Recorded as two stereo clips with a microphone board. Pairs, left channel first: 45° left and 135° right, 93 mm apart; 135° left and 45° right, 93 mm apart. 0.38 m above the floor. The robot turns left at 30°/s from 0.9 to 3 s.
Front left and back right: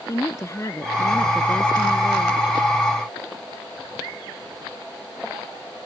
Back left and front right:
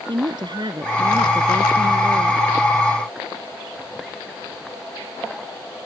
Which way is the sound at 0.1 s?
10° right.